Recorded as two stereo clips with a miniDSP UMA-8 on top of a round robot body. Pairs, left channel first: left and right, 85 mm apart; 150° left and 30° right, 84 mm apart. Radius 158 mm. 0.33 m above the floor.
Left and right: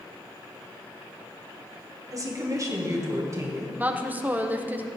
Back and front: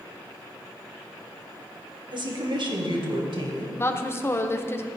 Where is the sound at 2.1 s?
45° right, 2.5 m; by 3.7 s 35° right, 3.5 m.